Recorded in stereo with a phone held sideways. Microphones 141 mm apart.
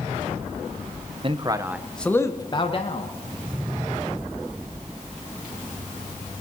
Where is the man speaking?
40° right (ahead or behind), 1.3 m; by 3.1 s 45° left (ahead or behind), 2 m.